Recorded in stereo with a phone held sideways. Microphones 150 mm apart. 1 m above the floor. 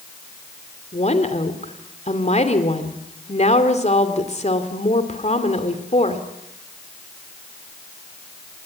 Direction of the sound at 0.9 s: 50° left (ahead or behind).